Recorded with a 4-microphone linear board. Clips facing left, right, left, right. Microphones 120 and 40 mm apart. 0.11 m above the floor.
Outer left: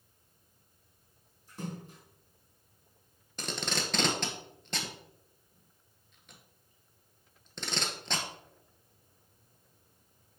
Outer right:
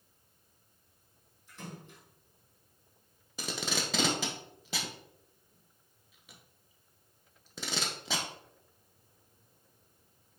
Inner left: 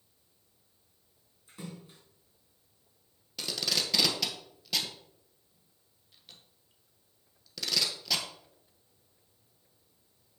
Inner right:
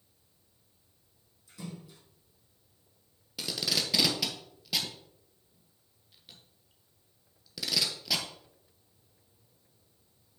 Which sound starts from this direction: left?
A splash, at 1.5 s.